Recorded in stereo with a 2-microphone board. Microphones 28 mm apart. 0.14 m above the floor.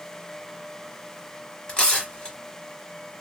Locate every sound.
1.7 s tearing paper: 25° left (ahead or behind), 1.8 m